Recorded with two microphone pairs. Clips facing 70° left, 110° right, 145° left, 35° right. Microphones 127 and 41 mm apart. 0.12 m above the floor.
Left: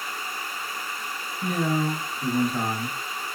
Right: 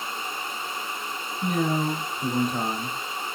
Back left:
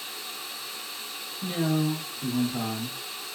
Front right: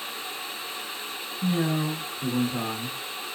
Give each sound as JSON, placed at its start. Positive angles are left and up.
{"t": 1.4, "sound": "a man speaking", "azimuth_deg": -140, "distance_m": 2.0}